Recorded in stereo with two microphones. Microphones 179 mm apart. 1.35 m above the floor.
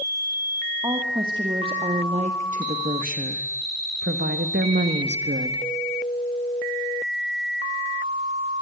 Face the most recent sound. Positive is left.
turn(degrees=-70)  # may be behind; listen again after turning